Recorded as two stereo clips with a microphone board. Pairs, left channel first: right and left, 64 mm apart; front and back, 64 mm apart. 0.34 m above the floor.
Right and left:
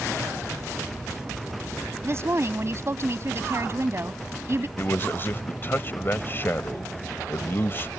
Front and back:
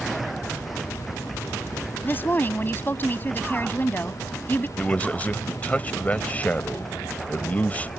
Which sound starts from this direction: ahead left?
A woman speaking, at 2.0 s.